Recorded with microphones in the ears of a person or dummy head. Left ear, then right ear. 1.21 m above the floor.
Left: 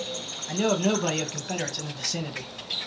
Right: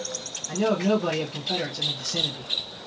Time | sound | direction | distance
0.5 | a man speaking | 35° left (ahead or behind) | 0.9 m